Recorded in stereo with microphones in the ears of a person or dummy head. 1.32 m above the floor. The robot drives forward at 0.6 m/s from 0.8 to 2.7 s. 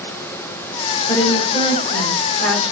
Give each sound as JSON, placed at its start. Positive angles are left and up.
{"t": 1.1, "sound": "a woman speaking", "side_deg": 20, "distance_m": 0.8}